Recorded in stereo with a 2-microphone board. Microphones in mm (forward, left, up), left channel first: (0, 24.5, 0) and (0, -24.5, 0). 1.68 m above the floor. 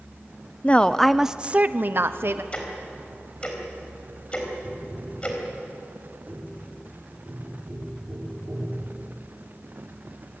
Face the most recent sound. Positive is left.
turn(degrees=-45)  # may be behind; listen again after turning